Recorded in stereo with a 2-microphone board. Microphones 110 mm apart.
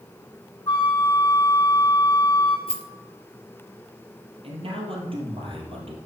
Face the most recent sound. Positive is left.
turn(degrees=-60)  # may be behind; listen again after turning